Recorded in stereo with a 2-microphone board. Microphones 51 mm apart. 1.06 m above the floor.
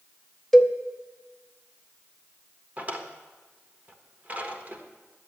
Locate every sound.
0.5 s a cowbell: 10° left (ahead or behind), 0.8 m
2.8 s a drawer: 30° right (ahead or behind), 1.2 m